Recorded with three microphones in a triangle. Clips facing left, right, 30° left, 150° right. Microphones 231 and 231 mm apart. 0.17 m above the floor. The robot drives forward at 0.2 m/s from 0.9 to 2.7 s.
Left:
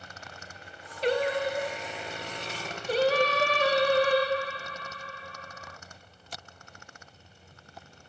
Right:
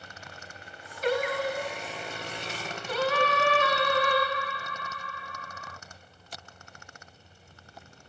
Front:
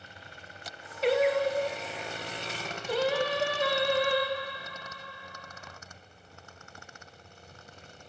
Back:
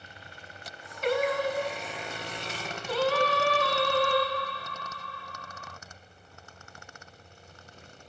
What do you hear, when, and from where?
1.0 s singing: 55° left, 1.1 m; by 5.8 s 85° left, 1.1 m